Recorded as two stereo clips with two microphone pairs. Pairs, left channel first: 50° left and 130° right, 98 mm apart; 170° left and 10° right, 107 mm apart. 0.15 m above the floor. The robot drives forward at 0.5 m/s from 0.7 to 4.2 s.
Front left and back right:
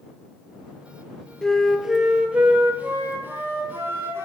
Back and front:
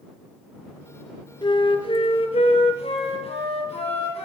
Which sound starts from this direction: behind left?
A flute, at 1.4 s.